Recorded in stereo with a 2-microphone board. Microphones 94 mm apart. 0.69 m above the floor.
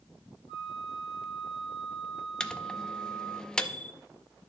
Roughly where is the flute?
Left.